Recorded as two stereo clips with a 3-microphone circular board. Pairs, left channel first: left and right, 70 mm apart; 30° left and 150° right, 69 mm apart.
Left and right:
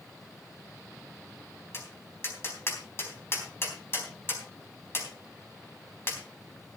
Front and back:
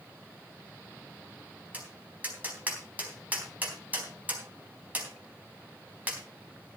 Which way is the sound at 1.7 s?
145° left.